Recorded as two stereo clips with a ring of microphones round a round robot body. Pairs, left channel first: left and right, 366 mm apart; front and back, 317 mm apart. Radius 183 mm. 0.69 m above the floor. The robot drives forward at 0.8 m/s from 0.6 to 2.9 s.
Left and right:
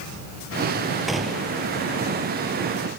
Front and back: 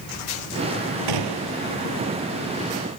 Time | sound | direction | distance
1.1 | a gunshot | straight behind | ?